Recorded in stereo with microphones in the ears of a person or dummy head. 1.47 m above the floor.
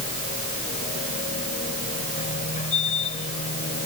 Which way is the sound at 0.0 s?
35° left (ahead or behind).